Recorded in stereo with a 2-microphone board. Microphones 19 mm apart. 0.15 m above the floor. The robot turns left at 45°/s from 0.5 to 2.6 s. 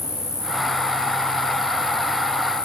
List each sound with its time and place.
0.0 s an insect: 25° right, 5.5 m; by 2.7 s 120° right, 5.5 m